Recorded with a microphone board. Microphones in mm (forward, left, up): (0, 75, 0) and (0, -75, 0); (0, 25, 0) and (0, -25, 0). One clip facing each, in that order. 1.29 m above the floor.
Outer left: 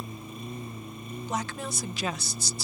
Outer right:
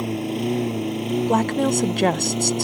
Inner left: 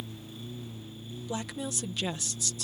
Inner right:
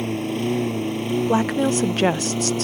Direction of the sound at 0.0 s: 80° right.